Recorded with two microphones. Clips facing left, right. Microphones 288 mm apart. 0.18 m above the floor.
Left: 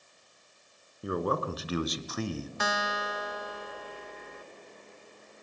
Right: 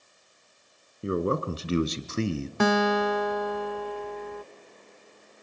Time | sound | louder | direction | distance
1.0 | a man speaking | right 4 dB | 25° right (ahead or behind) | 2.0 m
2.6 | a guitar | right 18 dB | 65° right (ahead or behind) | 0.5 m